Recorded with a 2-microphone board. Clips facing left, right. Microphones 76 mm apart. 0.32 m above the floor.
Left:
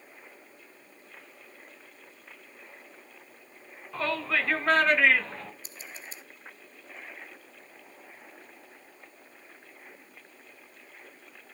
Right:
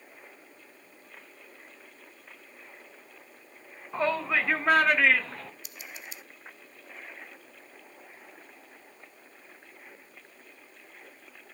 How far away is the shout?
About 3.5 m.